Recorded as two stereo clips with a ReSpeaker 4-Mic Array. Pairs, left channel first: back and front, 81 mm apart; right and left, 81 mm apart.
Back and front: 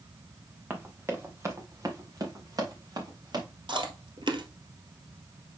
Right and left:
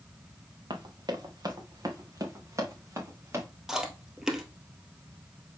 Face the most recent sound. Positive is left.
turn(degrees=5)